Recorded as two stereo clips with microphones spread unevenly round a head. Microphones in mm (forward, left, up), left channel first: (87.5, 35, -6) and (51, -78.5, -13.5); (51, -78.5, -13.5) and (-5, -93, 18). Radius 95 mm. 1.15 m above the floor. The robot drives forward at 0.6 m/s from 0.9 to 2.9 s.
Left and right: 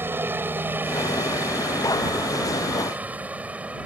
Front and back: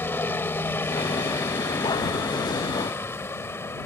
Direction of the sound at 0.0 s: 35° right.